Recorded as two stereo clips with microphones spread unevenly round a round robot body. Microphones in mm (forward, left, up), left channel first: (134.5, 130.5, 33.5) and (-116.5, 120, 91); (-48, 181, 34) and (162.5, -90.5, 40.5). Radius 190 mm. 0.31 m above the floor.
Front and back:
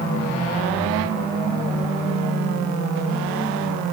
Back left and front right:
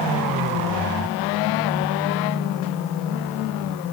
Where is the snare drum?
I don't hear a snare drum.